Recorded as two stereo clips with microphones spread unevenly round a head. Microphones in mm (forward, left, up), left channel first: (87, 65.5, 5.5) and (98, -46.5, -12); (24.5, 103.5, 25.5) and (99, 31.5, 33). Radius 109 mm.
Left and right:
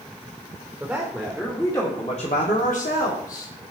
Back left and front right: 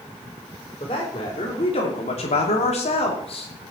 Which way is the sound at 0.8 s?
165° right.